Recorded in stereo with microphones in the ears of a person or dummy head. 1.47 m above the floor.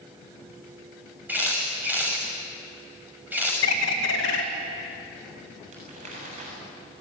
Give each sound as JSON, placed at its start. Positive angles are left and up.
{"t": 1.3, "sound": "a camera shutter", "side_deg": -10, "distance_m": 6.5}
{"t": 3.6, "sound": "a bird", "side_deg": 70, "distance_m": 2.5}
{"t": 5.7, "sound": "crumpling", "side_deg": -45, "distance_m": 7.5}